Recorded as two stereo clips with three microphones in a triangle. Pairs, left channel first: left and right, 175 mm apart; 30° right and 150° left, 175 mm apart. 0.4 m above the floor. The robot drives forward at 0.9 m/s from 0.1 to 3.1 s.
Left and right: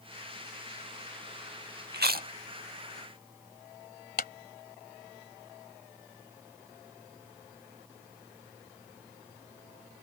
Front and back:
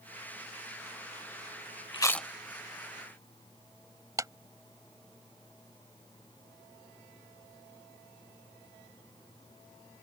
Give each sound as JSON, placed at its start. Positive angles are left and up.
{"t": 1.9, "sound": "chewing", "azimuth_deg": -95}
{"t": 4.2, "sound": "a clap", "azimuth_deg": 80}